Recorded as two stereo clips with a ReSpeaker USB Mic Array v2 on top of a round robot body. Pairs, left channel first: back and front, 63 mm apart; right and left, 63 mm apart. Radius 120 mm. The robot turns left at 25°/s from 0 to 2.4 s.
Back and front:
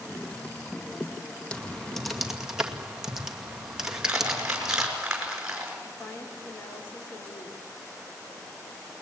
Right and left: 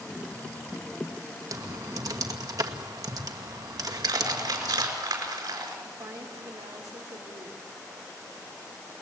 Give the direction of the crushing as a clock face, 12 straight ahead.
9 o'clock.